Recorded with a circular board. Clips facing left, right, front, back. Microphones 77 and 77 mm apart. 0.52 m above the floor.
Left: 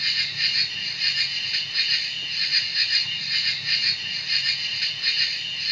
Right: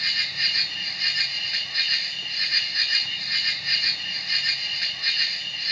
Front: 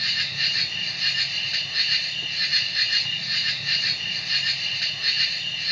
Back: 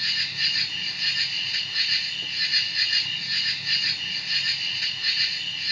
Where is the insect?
25° right, 3 m.